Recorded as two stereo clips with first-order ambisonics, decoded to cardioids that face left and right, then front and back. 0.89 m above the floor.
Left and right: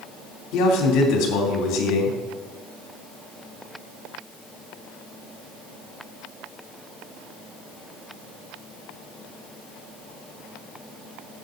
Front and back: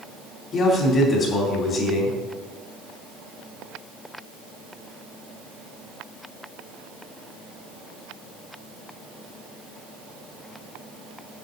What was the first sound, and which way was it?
A man speaking, 60° left.